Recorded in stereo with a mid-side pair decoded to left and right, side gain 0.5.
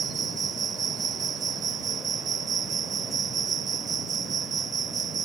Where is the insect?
45° right.